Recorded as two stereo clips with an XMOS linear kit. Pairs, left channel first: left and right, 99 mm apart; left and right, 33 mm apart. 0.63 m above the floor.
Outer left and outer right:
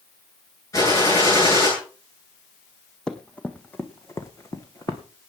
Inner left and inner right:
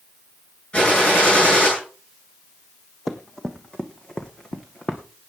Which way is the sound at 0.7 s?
35° left (ahead or behind).